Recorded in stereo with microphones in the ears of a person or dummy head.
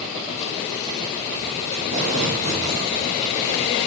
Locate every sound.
1.7 s tape being pulled: 40° right (ahead or behind), 7 m